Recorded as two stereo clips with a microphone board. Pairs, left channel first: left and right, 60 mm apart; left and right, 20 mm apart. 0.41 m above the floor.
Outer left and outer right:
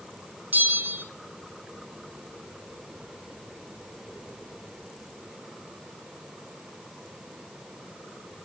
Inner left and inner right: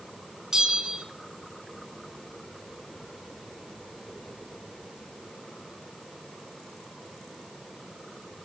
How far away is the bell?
About 0.9 m.